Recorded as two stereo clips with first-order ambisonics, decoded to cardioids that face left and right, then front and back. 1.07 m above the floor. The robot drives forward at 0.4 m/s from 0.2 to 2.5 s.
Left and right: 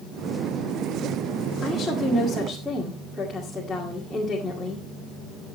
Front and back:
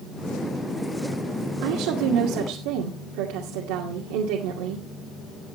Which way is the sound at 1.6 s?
Straight behind.